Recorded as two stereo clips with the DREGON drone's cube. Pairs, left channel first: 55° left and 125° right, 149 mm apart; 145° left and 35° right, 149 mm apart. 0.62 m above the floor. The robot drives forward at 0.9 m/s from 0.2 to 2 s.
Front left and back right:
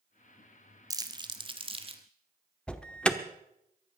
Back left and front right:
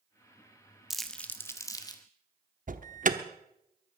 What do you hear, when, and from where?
0.9 s crumpling: 115° right, 1.2 m; by 2.0 s 160° right, 1.7 m
2.7 s an alarm: 25° right, 1.0 m